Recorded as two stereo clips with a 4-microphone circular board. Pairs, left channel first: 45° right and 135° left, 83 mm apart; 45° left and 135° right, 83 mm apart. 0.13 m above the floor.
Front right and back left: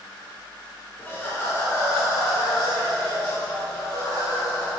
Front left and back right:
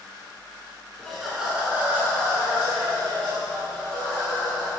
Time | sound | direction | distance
1.0 | laughter | 30° right | 1.2 m